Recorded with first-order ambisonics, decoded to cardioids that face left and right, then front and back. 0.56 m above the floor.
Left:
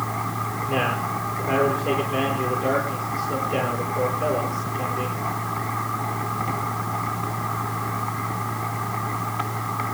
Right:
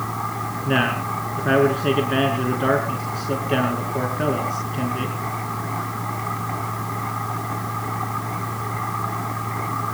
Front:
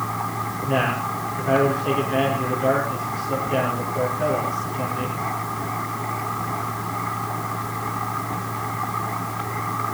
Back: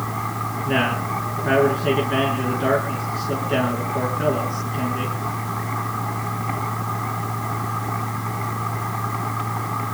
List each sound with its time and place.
0.7 s a man speaking: 110° right, 5.5 m